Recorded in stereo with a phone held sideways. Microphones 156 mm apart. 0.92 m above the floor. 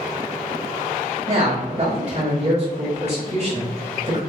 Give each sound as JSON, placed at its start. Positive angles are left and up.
{"t": 1.3, "sound": "a man speaking", "side_deg": -45, "distance_m": 1.1}